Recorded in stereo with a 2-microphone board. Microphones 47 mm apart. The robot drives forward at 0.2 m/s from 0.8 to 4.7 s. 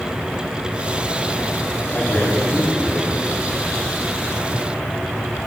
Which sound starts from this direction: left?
A man speaking, at 1.9 s.